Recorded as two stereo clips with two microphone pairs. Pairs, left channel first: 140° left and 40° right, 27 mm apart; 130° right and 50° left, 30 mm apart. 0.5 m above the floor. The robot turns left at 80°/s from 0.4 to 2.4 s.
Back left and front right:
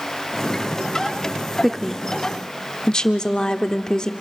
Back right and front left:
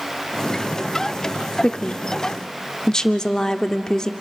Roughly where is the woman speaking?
Behind right.